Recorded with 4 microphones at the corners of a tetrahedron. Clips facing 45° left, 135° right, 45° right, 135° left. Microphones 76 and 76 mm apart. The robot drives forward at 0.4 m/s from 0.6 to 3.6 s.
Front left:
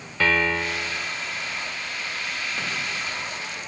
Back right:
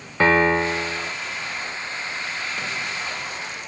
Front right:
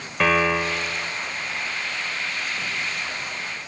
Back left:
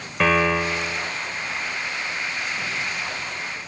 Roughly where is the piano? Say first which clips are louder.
Back right 5 dB, back left 1 dB; behind right.